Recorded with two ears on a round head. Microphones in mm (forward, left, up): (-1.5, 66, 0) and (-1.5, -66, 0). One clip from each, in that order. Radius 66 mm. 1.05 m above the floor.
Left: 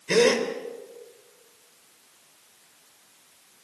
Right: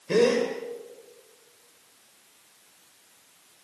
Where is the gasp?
50° left (ahead or behind), 3 m.